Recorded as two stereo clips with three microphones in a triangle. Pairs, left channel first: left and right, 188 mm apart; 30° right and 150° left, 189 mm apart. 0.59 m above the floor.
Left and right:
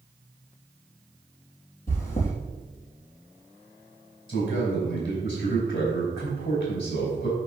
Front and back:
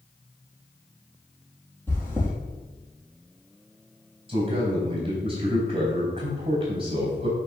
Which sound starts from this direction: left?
A man speaking, at 4.3 s.